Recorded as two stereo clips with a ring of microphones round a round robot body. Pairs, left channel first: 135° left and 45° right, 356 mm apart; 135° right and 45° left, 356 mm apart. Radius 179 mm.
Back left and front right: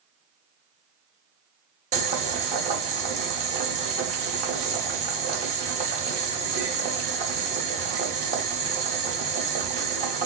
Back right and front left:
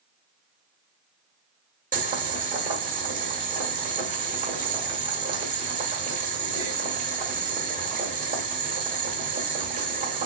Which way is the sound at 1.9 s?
5° left.